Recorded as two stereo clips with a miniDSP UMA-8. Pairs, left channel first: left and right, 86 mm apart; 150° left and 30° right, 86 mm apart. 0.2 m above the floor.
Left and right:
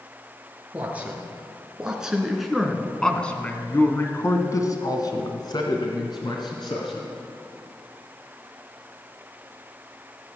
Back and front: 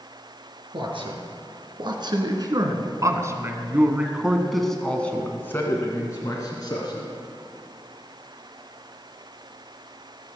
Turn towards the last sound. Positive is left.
turn(degrees=110)